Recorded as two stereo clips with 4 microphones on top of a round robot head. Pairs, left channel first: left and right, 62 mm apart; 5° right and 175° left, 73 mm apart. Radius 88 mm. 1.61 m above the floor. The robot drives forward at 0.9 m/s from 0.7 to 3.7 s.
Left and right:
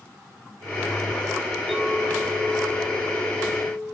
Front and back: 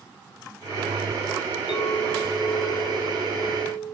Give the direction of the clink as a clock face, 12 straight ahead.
12 o'clock.